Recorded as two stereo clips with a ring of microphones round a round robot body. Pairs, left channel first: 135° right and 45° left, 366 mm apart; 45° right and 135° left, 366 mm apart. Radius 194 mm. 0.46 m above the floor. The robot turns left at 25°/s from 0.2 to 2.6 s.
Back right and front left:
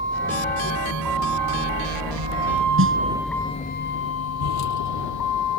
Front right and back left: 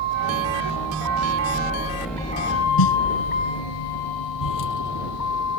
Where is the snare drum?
15° right.